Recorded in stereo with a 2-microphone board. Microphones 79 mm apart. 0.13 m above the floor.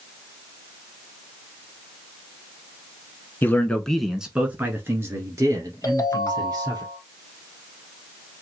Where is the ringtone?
40° left (ahead or behind), 1.2 m.